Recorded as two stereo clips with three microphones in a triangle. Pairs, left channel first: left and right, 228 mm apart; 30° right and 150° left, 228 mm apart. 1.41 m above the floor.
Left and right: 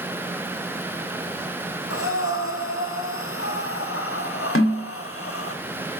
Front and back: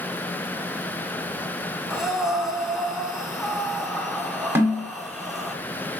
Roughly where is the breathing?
Ahead left.